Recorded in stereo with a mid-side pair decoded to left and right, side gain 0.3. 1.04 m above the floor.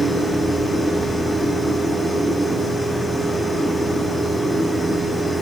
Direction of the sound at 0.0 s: Straight ahead.